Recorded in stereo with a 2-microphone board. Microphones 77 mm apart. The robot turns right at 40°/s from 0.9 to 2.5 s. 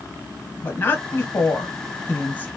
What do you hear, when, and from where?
0.6 s a woman speaking: 25° left (ahead or behind), 1.1 m; by 2.5 s 20° left (ahead or behind), 1.1 m